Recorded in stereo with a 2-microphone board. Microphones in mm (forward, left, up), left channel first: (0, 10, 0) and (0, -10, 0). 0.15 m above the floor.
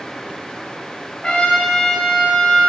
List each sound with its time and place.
1.2 s a trumpet: 50° left (ahead or behind), 2.0 m